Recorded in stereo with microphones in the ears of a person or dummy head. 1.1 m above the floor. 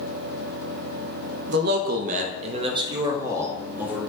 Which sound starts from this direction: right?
A man speaking, at 1.5 s.